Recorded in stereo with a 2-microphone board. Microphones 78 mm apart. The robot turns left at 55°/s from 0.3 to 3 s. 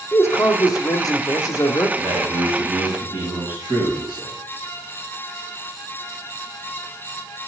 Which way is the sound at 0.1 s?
135° left.